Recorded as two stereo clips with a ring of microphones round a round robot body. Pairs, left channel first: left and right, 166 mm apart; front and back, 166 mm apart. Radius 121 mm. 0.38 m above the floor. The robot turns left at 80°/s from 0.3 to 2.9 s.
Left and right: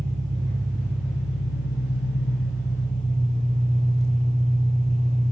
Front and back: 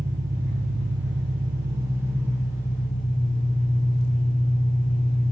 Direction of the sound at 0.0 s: 125° right.